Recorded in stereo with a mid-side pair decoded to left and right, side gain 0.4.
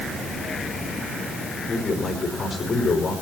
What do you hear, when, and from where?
1.7 s a man speaking: 45° left, 5.5 m